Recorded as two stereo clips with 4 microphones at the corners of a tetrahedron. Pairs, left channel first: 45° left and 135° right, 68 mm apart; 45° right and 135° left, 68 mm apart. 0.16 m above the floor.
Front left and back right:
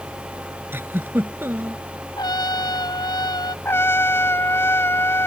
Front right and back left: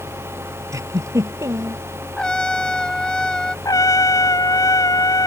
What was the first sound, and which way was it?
A giggle, 170° left.